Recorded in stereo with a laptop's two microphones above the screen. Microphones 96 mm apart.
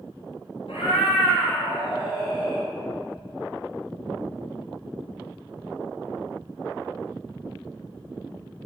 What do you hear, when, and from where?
0.7 s a cat meowing: 75° left (ahead or behind), 2 m; by 2.7 s 45° left (ahead or behind), 3.5 m